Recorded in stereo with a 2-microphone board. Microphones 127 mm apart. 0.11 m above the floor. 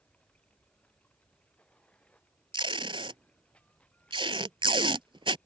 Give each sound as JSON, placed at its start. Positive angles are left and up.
{"t": 0.0, "sound": "running water", "side_deg": 10}
{"t": 2.5, "sound": "tape being pulled", "side_deg": -40}